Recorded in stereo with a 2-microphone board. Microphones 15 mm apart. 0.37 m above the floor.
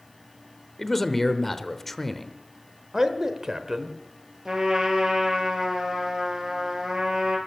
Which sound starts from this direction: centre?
A man speaking, at 0.8 s.